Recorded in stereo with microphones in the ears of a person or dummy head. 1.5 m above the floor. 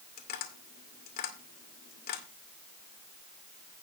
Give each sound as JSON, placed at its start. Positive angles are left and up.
{"t": 0.2, "sound": "tapping", "side_deg": 45, "distance_m": 2.0}